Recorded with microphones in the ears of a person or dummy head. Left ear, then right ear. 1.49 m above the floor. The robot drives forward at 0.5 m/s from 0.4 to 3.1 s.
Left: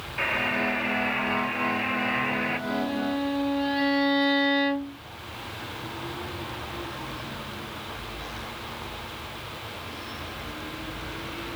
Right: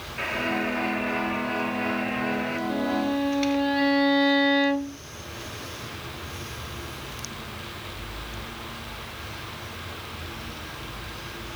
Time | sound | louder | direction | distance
0.2 | a buzzer | left 2 dB | 25° left (ahead or behind) | ?
2.7 | a violin | right 2 dB | centre (ahead or behind) | ?